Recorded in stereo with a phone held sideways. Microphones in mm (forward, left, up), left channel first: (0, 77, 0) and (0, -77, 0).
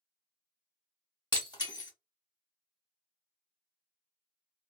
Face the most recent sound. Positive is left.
turn(degrees=25)  # may be behind; listen again after turning